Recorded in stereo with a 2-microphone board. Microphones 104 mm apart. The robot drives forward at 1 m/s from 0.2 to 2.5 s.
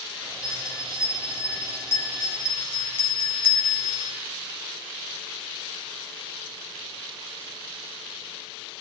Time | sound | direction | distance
0.4 | a bell | 35° left (ahead or behind) | 2.5 m